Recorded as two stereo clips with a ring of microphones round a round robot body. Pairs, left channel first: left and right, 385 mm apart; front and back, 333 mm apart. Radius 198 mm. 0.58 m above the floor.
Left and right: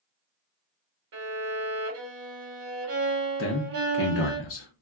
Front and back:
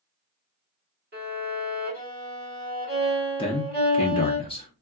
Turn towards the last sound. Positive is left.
turn(degrees=65)